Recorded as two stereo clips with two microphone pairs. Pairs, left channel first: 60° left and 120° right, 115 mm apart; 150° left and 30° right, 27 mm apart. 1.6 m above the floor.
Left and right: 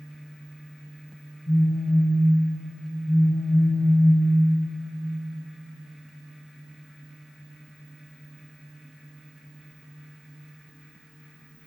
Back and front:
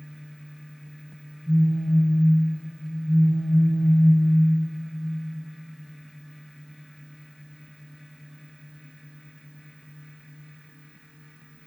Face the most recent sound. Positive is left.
turn(degrees=75)